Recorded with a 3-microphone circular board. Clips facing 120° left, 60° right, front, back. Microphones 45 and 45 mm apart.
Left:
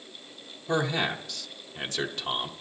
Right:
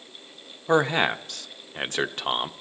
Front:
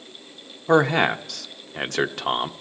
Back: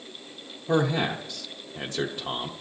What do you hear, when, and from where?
0.7 s a man speaking: 15° right, 0.6 m